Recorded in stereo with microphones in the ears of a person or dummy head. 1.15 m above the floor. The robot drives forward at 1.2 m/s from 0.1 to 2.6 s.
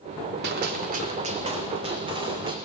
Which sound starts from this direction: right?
A gunshot, at 0.4 s.